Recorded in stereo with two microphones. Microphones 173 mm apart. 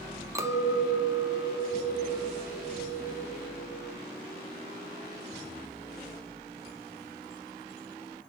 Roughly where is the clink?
Centre.